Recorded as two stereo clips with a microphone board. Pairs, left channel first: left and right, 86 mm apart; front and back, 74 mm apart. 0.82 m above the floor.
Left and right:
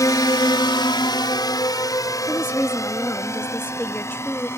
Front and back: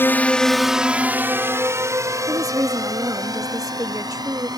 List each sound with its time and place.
0.0 s a drone: 55° left; by 4.6 s 150° left
2.3 s a woman speaking: 150° left